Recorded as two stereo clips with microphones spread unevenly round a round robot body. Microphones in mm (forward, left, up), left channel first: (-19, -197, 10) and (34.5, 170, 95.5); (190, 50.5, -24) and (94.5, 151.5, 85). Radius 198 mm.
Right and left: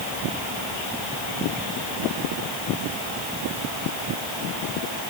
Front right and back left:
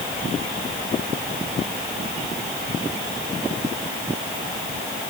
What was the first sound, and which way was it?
Only background noise.